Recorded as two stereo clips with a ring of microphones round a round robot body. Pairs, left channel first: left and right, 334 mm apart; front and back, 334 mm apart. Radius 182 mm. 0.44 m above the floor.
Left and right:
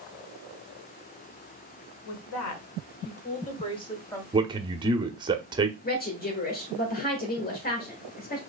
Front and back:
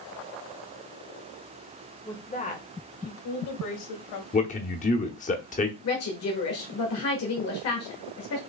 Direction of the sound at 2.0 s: 80° left.